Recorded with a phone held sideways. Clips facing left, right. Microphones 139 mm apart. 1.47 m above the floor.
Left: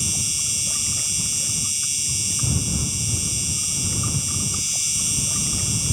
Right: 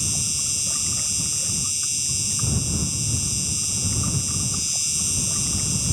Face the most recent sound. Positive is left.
turn(degrees=75)  # may be behind; listen again after turning